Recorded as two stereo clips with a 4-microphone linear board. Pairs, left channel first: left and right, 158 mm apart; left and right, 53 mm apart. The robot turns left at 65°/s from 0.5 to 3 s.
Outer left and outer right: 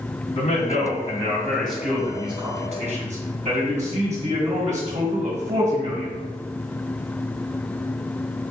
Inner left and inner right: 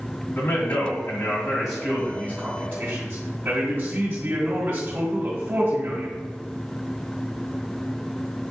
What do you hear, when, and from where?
0.4 s a man speaking: 80° left, 2 m; by 6.1 s 85° right, 2 m